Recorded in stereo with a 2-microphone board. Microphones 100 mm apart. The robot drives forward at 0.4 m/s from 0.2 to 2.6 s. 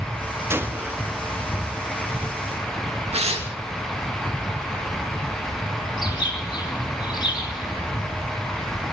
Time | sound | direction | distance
0.5 | a gunshot | 20° right (ahead or behind) | 0.9 m
3.1 | tearing paper | 80° right | 2.5 m
6.0 | a bird | 45° left (ahead or behind) | 2.5 m